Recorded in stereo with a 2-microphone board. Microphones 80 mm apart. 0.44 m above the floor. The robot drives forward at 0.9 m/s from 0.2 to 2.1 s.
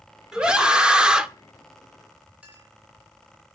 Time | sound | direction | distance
0.3 | a scream | 10° right (ahead or behind) | 0.8 m
2.4 | a clink | 15° right (ahead or behind) | 4.5 m